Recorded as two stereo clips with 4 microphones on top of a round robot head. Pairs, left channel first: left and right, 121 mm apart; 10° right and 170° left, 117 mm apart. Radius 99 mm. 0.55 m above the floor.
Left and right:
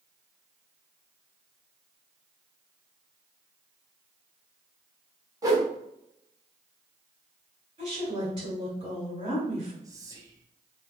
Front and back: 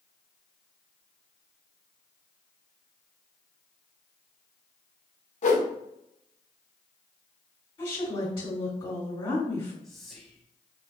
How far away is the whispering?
About 0.7 m.